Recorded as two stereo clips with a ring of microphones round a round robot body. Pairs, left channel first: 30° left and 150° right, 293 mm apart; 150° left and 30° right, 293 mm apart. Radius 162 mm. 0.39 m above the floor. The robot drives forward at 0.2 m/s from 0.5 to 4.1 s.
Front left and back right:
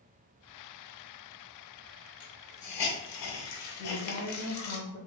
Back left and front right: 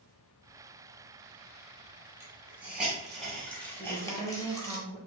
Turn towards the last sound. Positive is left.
turn(degrees=50)